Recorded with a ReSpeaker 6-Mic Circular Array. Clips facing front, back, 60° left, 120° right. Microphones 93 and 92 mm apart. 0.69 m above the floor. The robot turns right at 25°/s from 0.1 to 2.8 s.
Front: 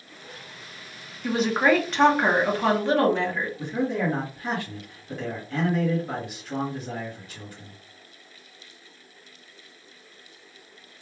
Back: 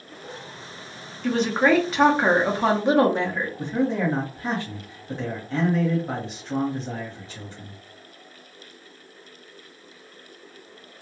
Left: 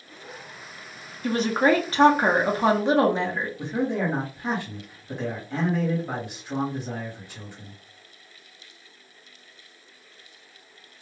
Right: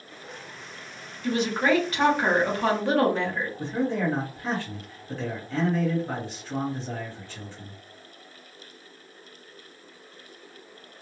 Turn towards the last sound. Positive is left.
turn(degrees=130)